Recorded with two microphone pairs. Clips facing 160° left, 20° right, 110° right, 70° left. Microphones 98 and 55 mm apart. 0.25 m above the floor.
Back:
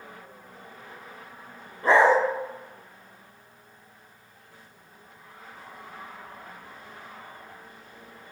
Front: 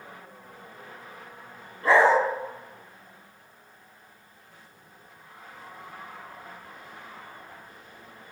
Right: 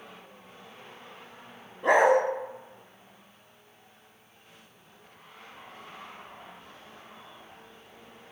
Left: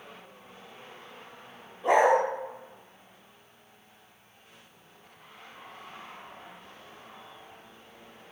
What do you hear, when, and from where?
1.8 s a dog barking: 130° right, 0.7 m